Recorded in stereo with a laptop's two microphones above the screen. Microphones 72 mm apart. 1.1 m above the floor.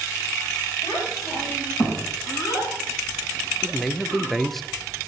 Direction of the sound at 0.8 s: 80° left.